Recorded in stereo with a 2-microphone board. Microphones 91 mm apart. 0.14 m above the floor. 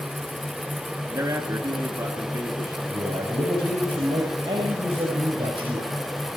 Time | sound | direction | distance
1.1 | a man speaking | 40° right (ahead or behind) | 2.5 m
2.9 | a man speaking | 70° right (ahead or behind) | 6.5 m